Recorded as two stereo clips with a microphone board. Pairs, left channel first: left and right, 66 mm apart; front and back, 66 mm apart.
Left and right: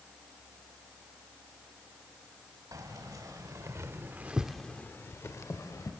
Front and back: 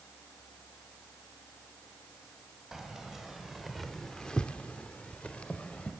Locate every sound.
2.7 s keys jangling: 95° right, 2 m; by 5.9 s 70° left, 1.7 m